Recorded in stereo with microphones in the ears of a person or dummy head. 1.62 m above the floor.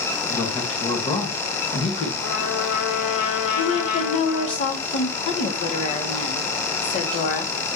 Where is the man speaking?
20° left (ahead or behind), 1.7 m; by 2.1 s 45° left (ahead or behind), 2.5 m.